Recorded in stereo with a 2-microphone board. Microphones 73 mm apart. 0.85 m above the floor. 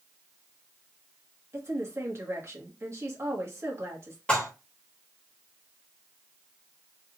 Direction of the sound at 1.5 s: 40° right (ahead or behind).